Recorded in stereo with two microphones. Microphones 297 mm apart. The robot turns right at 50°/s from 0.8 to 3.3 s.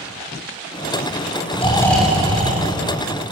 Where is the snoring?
160° left, 2.5 m; by 3.3 s 115° right, 2.5 m.